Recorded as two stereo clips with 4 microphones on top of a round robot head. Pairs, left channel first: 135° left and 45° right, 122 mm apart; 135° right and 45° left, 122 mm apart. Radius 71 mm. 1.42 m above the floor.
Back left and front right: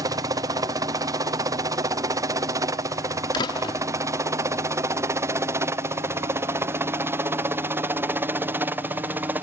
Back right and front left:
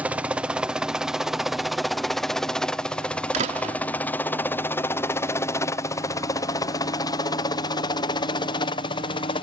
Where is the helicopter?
25° right; by 9.4 s 115° right.